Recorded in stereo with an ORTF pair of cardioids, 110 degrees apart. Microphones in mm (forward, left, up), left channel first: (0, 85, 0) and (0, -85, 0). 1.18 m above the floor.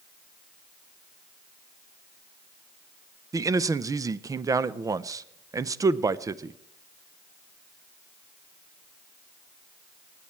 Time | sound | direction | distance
3.3 | a man speaking | 20° right | 0.5 m